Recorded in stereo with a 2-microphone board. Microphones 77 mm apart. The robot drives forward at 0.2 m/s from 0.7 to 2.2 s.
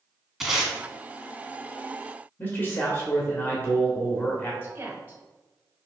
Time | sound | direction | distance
0.4 | tape being pulled | 5° right (ahead or behind) | 1.1 m
2.4 | a man speaking | 25° left (ahead or behind) | 0.9 m
4.6 | a woman speaking | 25° right (ahead or behind) | 1.2 m